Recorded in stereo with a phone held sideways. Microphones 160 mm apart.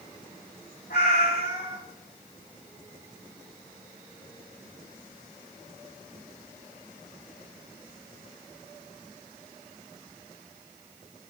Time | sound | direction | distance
0.9 | a cat meowing | 75° left (ahead or behind) | 4 m